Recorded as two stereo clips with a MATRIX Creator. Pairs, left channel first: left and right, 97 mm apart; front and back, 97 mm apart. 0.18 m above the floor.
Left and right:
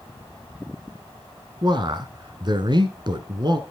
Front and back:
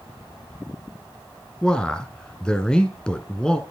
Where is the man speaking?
80° right, 1.6 m.